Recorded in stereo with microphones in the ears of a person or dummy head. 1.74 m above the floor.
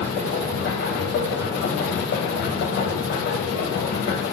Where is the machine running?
75° left (ahead or behind), 0.8 m.